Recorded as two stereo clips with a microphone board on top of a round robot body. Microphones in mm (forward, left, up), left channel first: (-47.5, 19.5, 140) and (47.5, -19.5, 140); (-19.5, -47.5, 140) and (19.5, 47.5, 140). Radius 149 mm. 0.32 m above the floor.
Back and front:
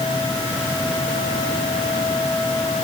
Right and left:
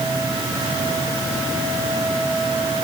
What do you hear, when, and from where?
Only background noise.